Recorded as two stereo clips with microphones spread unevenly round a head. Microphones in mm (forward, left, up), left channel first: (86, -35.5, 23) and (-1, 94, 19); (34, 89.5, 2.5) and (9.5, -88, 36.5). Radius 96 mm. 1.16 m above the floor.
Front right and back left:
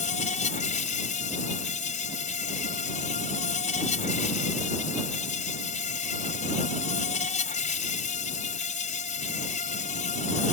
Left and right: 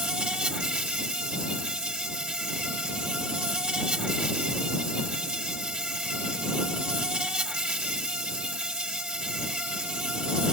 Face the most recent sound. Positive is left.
turn(degrees=-15)